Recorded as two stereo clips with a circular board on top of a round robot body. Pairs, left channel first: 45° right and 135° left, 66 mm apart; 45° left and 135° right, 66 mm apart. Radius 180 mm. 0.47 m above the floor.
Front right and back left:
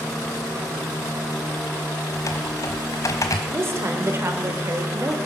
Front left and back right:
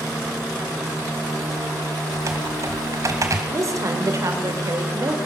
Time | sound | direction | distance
2.1 | typing on a keyboard | 85° right | 1.3 m
3.5 | a woman speaking | 175° right | 2.5 m